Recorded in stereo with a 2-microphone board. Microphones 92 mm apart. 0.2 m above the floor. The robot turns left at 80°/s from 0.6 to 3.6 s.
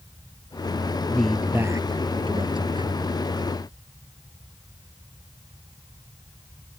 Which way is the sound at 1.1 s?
15° left.